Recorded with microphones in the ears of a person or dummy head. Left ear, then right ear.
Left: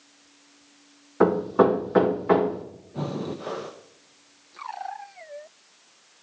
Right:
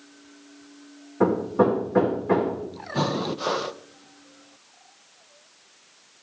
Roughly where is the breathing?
Right.